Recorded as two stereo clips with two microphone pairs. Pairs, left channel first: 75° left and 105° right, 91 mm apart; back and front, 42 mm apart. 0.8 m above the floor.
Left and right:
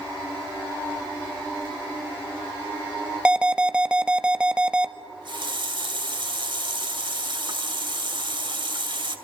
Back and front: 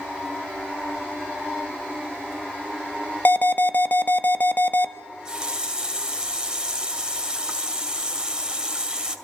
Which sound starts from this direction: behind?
An alarm, at 3.2 s.